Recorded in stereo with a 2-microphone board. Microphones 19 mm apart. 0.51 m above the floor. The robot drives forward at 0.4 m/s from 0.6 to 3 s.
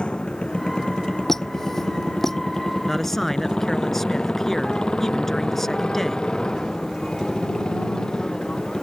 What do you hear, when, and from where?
0.0 s a motorcycle: 55° left (ahead or behind); by 8.8 s 35° left (ahead or behind)
1.3 s a squeak: 20° left (ahead or behind); by 2.4 s 15° left (ahead or behind)
2.9 s a man speaking: 15° left (ahead or behind)